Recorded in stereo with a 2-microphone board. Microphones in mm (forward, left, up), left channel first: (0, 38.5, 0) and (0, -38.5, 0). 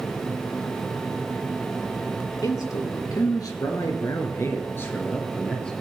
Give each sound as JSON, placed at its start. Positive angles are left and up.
{"t": 2.4, "sound": "a man speaking", "side_deg": 50, "distance_m": 3.0}